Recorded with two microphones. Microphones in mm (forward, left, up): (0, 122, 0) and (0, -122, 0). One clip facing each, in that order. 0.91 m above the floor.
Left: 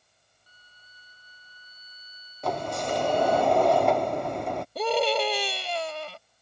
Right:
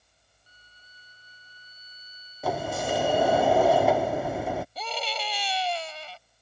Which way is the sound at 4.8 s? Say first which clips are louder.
Left 11 dB; 65° left (ahead or behind).